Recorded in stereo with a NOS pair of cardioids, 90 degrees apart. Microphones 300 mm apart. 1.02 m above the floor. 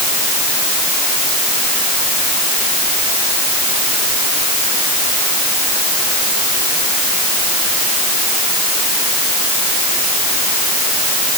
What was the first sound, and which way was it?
Only background noise.